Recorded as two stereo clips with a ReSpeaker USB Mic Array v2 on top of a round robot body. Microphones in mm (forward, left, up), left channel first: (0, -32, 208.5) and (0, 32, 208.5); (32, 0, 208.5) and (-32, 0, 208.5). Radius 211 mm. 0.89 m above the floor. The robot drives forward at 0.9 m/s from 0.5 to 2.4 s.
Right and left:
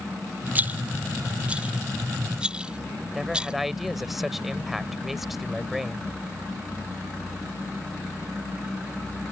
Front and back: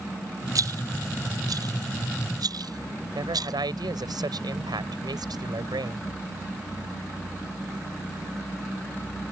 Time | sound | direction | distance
0.6 | a rattle | 150° left | ?
3.1 | a man speaking | 175° left | ?